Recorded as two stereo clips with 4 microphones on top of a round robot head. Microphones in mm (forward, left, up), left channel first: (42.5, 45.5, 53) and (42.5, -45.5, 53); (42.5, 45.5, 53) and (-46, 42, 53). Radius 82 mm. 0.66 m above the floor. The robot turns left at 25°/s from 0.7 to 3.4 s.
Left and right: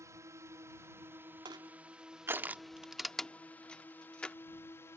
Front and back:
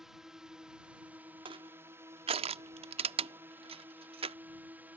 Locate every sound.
0.0 s a drone: 95° right; by 5.0 s 125° left
1.4 s crushing: 140° right; by 4.4 s 170° left